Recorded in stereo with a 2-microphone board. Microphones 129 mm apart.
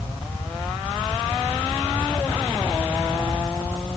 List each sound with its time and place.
Only background noise.